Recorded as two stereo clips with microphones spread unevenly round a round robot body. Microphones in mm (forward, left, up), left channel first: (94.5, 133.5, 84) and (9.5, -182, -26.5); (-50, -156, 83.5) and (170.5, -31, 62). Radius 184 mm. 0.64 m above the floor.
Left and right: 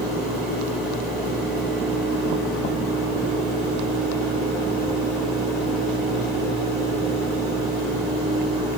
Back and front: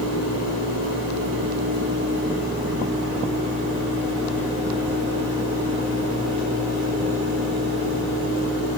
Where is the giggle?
No giggle in this recording.